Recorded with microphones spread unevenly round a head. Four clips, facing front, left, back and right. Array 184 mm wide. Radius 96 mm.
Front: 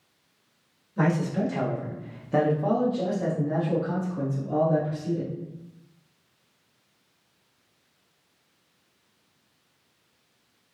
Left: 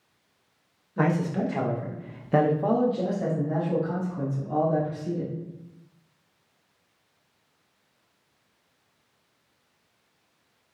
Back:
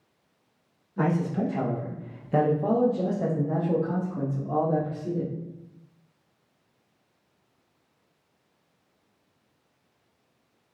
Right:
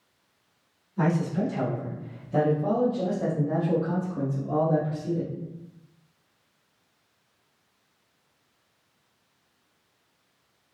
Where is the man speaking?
70° left, 1.4 m; by 5.3 s 125° right, 1.5 m.